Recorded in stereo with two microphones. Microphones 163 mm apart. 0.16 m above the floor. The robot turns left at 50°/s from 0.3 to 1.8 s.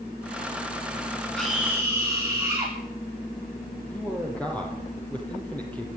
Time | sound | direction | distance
1.4 | a scream | 10° left (ahead or behind) | 6 m
3.9 | a man speaking | 10° left (ahead or behind) | 4.5 m